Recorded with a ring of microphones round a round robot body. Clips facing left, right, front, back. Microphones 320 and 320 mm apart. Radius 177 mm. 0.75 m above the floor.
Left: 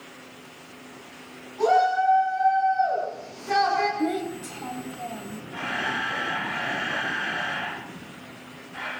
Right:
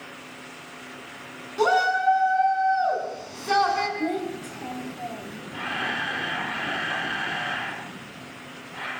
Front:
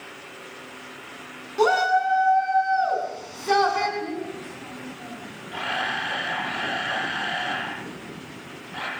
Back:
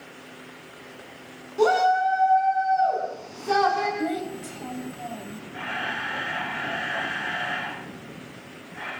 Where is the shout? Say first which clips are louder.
Left 1 dB, back 1 dB; 70° right, 8 m; by 3.9 s 45° right, 7.5 m.